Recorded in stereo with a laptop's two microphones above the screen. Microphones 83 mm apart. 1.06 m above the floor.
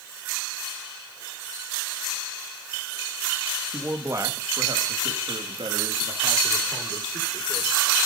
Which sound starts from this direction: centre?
A man speaking, at 3.7 s.